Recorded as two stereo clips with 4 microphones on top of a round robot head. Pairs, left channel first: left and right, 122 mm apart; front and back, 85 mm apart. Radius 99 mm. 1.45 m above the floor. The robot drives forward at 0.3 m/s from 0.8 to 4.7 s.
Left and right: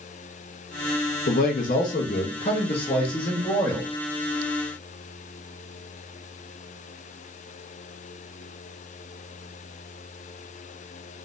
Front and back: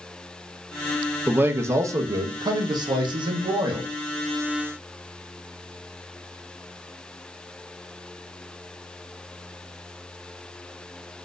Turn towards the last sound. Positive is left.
turn(degrees=160)